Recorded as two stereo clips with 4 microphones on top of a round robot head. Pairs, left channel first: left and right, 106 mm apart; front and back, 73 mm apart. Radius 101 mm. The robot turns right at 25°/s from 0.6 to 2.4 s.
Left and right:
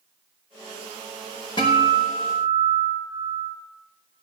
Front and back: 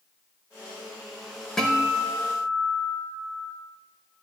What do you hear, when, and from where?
1.6 s a guitar: 75° left, 1.0 m; by 3.5 s 95° left, 1.0 m